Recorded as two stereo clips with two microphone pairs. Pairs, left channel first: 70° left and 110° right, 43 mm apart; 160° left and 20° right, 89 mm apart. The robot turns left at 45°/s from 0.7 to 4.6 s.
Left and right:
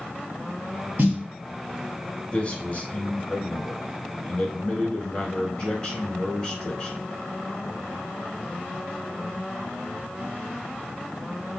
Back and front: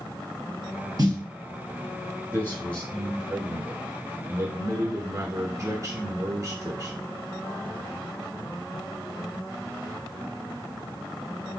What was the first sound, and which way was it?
A snare drum, 65° right.